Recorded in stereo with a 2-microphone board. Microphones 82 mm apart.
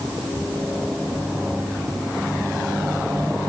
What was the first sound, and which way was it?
Only background noise.